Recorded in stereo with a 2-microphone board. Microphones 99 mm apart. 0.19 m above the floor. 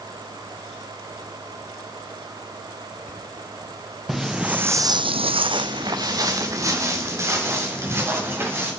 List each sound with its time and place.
4.1 s footsteps: 5° right (ahead or behind), 1.4 m; by 8.7 s 25° right (ahead or behind), 5 m